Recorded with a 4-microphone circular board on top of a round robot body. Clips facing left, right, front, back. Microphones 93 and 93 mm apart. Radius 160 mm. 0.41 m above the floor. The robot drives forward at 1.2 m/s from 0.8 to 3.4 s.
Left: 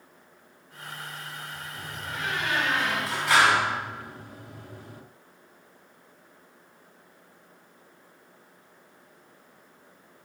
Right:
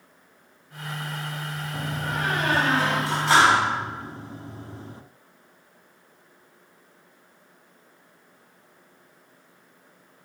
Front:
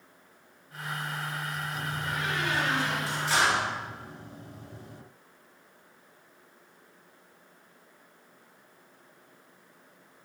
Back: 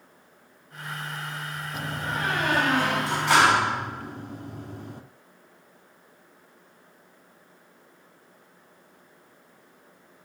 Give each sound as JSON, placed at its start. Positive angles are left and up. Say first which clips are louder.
{"t": 1.7, "sound": "a door slam", "louder": "right 8 dB, back 6 dB", "azimuth_deg": -125, "distance_m": 1.7}